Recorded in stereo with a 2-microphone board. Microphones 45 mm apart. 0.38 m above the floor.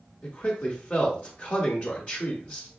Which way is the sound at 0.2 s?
25° left (ahead or behind).